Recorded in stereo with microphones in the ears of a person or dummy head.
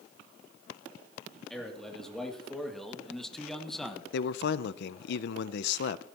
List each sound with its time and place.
1.5 s a man speaking: 5° left (ahead or behind), 3 m
4.1 s a man speaking: 70° left (ahead or behind), 0.6 m